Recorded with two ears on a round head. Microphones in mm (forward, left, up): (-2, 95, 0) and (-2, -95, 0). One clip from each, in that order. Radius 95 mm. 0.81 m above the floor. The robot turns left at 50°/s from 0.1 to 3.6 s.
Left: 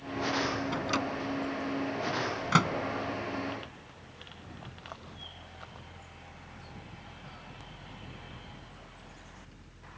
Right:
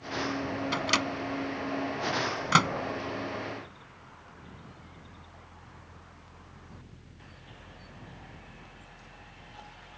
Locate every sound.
0.7 s a microwave: 55° right (ahead or behind); by 2.7 s 25° right (ahead or behind)